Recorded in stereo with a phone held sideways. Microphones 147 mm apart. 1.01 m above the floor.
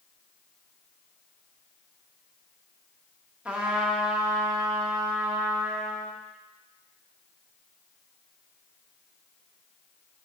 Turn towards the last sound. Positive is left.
turn(degrees=-10)  # may be behind; listen again after turning